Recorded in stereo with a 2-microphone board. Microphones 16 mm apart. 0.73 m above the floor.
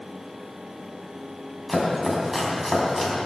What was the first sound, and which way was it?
Chopping, 5° right (ahead or behind).